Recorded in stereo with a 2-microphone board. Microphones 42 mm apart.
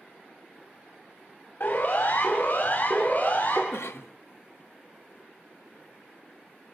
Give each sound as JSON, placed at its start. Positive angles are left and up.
{"t": 1.6, "sound": "a siren", "side_deg": 60, "distance_m": 6.0}
{"t": 3.7, "sound": "a cough", "side_deg": 70, "distance_m": 0.8}